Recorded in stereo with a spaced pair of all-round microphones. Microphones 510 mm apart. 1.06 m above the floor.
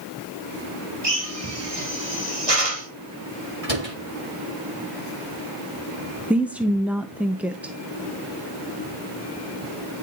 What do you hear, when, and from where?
1.0 s a drill: 85° right, 3.5 m
3.6 s a door slam: 80° right, 7.5 m
6.3 s a woman speaking: centre (ahead or behind), 1.0 m